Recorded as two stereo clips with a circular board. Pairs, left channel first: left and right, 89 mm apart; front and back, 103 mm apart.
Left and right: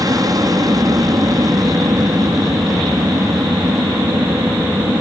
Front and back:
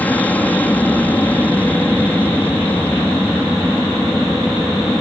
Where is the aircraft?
70° right.